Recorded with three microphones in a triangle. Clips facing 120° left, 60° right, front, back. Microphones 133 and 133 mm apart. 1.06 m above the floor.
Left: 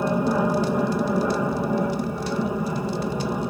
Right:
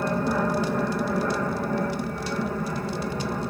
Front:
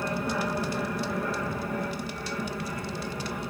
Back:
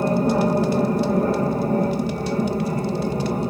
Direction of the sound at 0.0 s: 170° right.